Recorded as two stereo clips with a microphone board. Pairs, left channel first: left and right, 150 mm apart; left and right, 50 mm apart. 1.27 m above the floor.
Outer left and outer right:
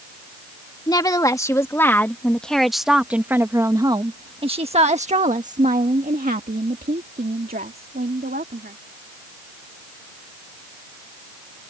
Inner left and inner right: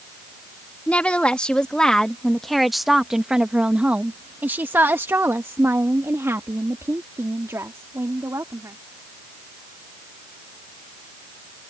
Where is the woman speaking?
25° left (ahead or behind); by 8.8 s 85° right.